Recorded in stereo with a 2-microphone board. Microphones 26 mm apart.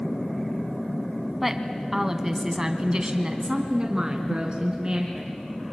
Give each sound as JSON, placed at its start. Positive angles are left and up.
{"t": 1.4, "sound": "a woman speaking", "side_deg": -10, "distance_m": 1.3}